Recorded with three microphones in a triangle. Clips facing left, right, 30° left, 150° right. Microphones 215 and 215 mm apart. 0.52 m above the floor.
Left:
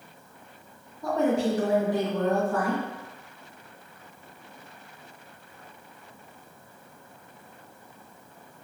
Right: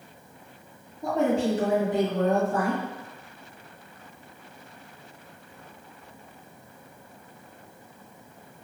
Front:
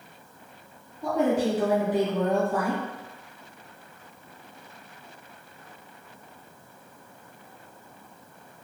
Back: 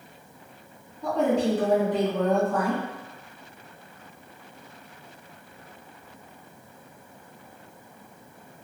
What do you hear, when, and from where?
1.0 s a woman speaking: 50° right, 1.3 m